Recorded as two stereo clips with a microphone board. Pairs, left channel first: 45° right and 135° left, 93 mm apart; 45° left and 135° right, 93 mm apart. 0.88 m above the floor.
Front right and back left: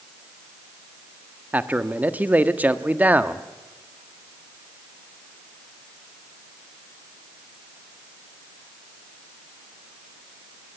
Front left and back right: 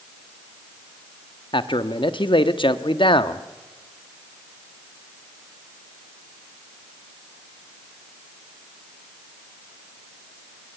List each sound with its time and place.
1.5 s a man speaking: 65° left, 1.3 m